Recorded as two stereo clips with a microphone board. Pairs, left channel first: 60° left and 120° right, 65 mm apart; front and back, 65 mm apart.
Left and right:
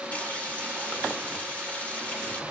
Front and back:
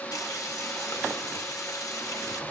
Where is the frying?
5° right, 2.5 m.